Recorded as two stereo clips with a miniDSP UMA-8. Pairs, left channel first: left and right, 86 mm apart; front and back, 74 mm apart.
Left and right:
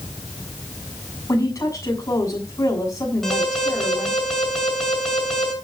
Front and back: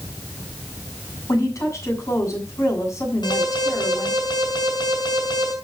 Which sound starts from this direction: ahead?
An alarm, at 3.2 s.